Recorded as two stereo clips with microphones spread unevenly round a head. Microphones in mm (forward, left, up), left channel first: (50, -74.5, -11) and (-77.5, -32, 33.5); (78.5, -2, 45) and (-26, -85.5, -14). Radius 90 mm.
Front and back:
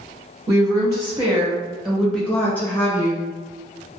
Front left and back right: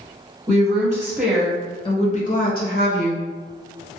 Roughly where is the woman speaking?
Behind right.